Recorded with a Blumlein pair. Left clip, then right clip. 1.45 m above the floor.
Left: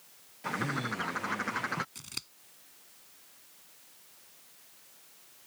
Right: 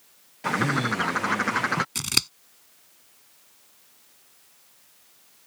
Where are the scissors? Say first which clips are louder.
Right 17 dB; 35° right.